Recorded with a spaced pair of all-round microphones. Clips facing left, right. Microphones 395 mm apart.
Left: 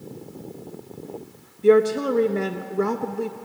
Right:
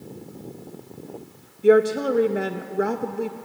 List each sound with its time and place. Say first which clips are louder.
1.6 s a woman speaking: even; 5° left (ahead or behind), 0.9 m